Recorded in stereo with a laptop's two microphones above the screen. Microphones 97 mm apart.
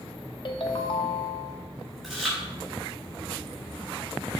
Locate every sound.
0.5 s a ringtone: 55° left (ahead or behind), 0.8 m
2.0 s chewing: centre (ahead or behind), 4 m